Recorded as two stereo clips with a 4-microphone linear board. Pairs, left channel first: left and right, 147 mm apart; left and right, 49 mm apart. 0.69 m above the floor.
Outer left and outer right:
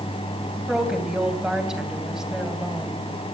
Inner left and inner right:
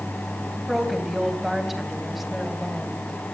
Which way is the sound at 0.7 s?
5° right (ahead or behind).